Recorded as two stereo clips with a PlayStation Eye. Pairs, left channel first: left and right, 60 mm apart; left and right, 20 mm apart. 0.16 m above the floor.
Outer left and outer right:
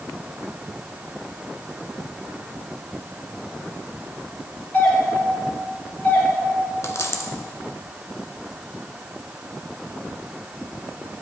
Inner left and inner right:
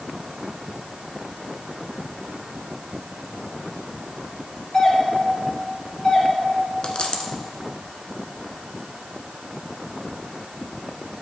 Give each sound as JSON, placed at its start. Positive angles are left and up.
{"t": 4.7, "sound": "a doorbell", "side_deg": 30, "distance_m": 2.5}
{"t": 6.8, "sound": "a dropped coin", "side_deg": 50, "distance_m": 0.8}